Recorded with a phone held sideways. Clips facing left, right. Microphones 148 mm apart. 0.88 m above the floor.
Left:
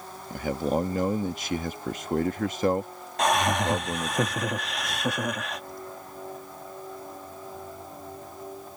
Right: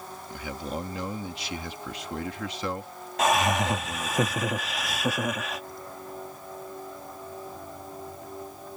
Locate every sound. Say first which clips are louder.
0.3 s a man speaking: left 8 dB; 45° left (ahead or behind)
3.2 s laughter: even; 5° right (ahead or behind)